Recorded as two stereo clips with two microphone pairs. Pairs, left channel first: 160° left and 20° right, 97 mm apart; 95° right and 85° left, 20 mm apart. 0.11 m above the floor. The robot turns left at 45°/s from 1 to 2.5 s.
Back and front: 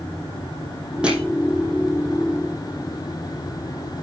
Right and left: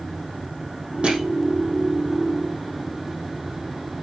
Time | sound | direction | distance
1.0 | crushing | 60° left | 5 m